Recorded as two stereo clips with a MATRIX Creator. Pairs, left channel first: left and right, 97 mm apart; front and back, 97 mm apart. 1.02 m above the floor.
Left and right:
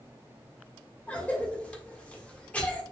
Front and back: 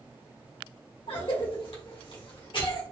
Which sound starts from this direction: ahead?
A cough, at 1.1 s.